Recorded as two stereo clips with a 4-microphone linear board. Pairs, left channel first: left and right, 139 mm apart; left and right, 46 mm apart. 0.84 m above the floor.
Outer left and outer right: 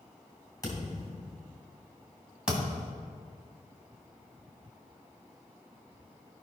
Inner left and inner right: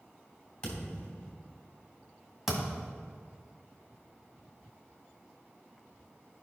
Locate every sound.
0.6 s a thud: 25° left (ahead or behind), 2.5 m
2.5 s a thud: 5° right (ahead or behind), 2.0 m